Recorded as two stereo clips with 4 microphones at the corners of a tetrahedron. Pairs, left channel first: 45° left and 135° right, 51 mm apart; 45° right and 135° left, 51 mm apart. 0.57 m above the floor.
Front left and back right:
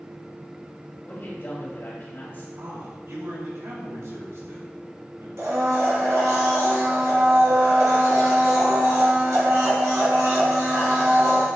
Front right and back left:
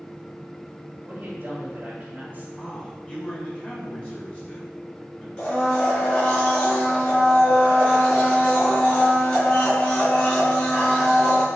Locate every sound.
1.0 s a man speaking: 90° left, 3 m
2.6 s a man speaking: 105° right, 4 m
5.4 s a blender: 110° right, 3.5 m